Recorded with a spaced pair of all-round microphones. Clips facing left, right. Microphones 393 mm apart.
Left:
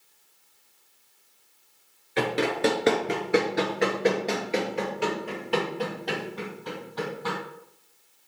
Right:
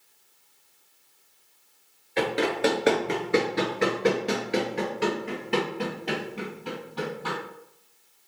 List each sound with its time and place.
2.2 s running footsteps: 20° left (ahead or behind), 1.2 m; by 7.4 s 45° right (ahead or behind), 2.5 m